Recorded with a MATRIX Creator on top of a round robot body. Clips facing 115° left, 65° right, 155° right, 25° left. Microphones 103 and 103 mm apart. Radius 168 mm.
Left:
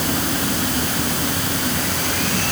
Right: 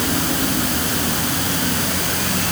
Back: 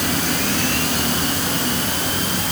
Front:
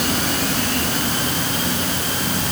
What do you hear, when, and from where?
Only background noise.